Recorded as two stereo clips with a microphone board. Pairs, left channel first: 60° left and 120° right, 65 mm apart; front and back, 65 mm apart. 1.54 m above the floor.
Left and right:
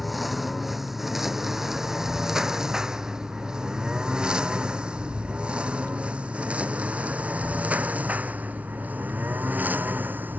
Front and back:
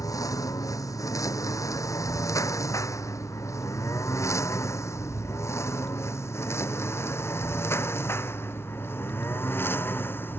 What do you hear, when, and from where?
0.0 s a lawn mower: 30° right; by 10.4 s 55° right